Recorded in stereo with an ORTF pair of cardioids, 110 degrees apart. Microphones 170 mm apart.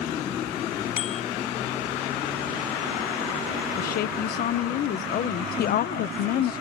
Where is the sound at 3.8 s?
65° left.